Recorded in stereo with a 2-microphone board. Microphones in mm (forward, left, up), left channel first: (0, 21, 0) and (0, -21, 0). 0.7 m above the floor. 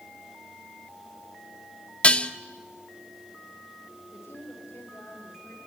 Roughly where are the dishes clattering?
Left.